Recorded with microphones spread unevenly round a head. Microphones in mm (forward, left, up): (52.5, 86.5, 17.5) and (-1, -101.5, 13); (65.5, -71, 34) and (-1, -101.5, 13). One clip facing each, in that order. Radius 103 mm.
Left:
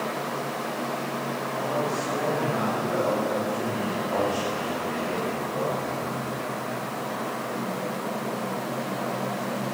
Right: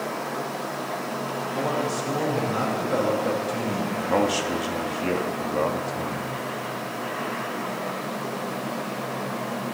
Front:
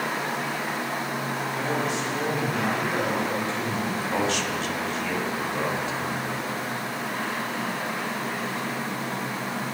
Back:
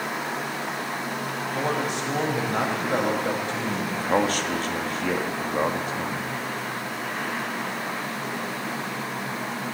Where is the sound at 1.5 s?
130° right, 6.5 m.